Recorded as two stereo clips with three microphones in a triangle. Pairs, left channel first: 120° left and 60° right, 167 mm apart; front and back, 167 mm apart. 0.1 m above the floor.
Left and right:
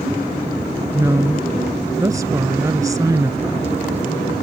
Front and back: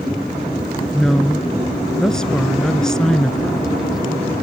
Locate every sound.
0.9 s a woman speaking: 80° right